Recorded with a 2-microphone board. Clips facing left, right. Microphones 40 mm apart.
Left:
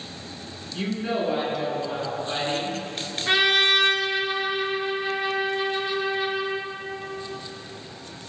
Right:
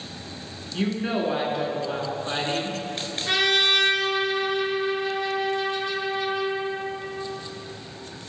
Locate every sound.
0.7 s a woman speaking: 25° right (ahead or behind), 1.6 m
3.3 s a trumpet: 20° left (ahead or behind), 1.2 m